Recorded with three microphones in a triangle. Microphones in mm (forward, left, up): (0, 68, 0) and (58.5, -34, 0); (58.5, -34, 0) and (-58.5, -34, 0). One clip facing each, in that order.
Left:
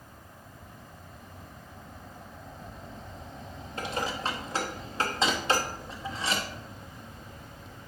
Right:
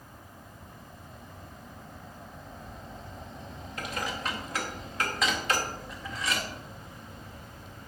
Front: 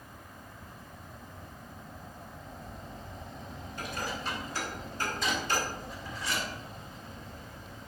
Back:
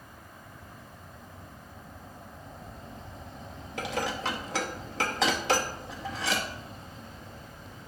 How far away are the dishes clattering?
About 0.8 m.